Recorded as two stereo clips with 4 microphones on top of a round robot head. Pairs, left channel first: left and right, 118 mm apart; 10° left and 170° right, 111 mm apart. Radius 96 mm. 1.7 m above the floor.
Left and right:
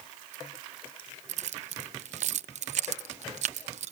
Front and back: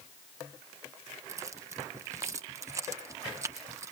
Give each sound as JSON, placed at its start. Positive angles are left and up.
{"t": 1.3, "sound": "keys jangling", "azimuth_deg": -100}